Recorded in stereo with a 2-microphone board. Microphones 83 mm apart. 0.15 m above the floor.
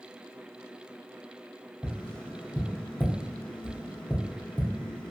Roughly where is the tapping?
Centre.